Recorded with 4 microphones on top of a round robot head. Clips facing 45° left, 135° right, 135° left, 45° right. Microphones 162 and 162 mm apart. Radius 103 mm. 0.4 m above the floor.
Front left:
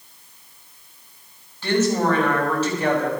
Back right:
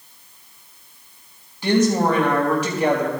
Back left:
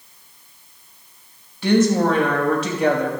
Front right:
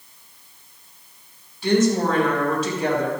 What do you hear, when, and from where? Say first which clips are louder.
1.6 s a woman speaking: back right 2 dB, back left 2 dB; 145° left, 3 m